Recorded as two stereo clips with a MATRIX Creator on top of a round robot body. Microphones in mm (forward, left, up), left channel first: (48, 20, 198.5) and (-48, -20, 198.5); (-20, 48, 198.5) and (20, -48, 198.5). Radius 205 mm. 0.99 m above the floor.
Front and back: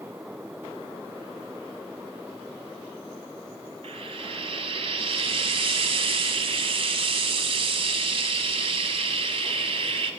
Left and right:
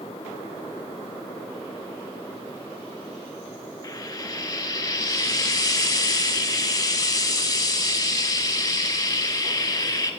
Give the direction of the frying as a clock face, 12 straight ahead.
6 o'clock.